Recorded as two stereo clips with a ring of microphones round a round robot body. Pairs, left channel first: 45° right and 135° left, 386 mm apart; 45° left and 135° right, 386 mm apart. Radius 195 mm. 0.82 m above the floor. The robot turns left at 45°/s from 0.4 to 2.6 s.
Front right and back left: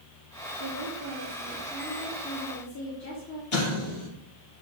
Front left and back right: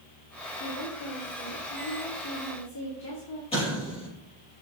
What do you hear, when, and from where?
0.6 s a woman speaking: 95° left, 2.5 m; by 3.4 s straight ahead, 2.5 m
3.5 s an explosion: 30° right, 5 m